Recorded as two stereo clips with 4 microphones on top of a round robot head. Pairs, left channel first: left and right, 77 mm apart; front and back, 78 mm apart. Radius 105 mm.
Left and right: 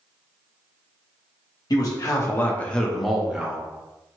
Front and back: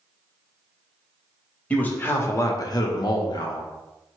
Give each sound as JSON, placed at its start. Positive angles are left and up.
{"t": 1.7, "sound": "a man speaking", "azimuth_deg": 70, "distance_m": 0.9}